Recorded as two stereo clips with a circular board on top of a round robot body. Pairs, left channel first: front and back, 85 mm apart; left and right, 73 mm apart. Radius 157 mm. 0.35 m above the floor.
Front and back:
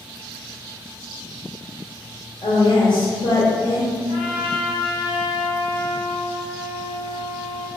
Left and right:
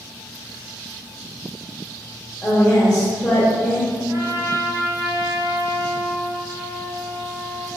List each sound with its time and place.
2.4 s a woman speaking: 10° left, 2 m
4.1 s a trumpet: 40° right, 2 m